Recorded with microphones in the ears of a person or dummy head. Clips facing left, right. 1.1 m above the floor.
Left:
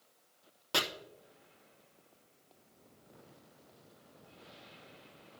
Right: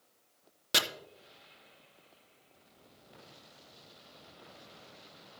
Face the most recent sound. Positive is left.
turn(degrees=-25)  # may be behind; listen again after turning